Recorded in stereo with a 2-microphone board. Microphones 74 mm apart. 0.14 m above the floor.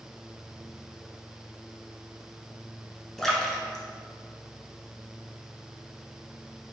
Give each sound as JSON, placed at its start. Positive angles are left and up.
{"t": 3.2, "sound": "a splash", "side_deg": 5, "distance_m": 0.6}